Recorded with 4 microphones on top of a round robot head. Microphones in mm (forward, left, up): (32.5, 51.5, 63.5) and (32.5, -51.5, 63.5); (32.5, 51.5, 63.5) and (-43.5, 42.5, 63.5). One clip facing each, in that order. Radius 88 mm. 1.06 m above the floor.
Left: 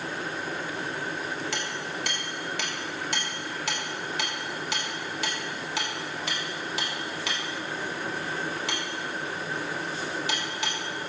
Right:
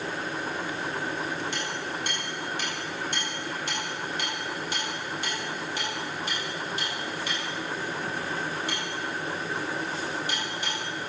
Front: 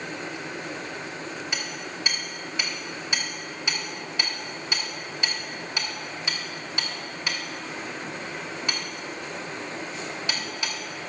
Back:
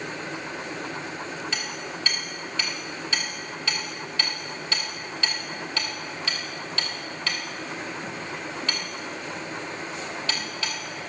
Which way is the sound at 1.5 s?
80° left.